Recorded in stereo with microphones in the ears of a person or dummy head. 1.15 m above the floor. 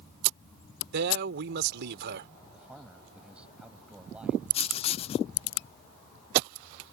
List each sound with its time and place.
0.9 s a man speaking: 65° right (ahead or behind)
2.5 s a man speaking: 5° right (ahead or behind)
4.5 s writing: 30° left (ahead or behind)